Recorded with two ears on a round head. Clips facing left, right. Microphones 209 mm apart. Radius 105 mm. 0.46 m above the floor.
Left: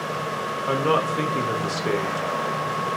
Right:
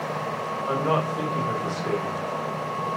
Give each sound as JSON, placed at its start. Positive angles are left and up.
{"t": 0.7, "sound": "a man speaking", "side_deg": 35, "distance_m": 1.4}